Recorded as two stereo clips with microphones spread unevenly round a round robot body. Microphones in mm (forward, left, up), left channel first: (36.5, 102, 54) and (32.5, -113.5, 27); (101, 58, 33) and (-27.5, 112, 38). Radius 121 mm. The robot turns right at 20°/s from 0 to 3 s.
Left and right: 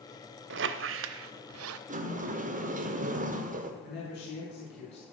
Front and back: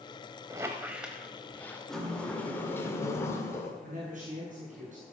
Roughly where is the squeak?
Behind right.